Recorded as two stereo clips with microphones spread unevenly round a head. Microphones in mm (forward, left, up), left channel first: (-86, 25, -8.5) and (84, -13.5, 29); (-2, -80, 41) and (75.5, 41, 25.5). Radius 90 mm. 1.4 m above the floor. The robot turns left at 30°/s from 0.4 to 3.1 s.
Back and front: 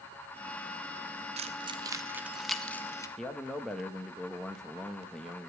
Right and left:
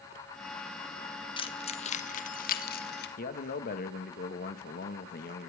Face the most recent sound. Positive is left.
turn(degrees=-105)